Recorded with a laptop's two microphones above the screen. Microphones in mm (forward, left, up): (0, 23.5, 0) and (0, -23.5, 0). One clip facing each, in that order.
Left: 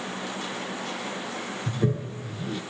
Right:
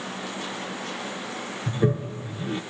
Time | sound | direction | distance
1.7 | a toilet flushing | 25° right (ahead or behind) | 2.5 m